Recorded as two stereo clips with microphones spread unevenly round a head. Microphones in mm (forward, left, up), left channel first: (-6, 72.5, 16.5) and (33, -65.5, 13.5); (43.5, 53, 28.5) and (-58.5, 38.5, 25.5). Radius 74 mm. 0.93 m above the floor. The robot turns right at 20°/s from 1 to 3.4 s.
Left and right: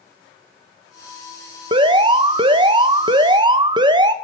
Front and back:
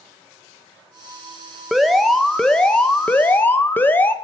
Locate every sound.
1.7 s an alarm: 85° right, 1.2 m; by 4.1 s 55° right, 1.2 m